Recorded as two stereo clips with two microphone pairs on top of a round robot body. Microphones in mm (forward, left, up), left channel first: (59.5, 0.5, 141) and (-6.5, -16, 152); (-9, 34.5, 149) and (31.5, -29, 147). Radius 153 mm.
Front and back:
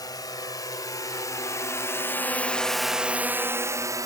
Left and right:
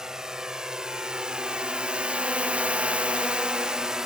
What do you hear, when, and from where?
0.0 s a drone: 25° left; by 4.1 s 140° right